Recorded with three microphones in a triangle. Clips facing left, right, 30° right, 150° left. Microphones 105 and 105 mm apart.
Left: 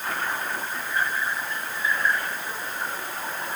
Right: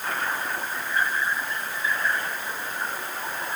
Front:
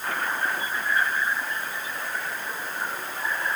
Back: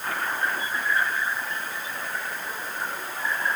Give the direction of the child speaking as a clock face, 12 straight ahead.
No child speaking in this recording.